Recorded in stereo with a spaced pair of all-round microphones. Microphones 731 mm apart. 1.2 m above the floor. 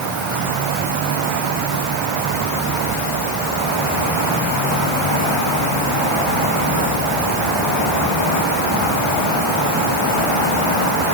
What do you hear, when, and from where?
Only background noise.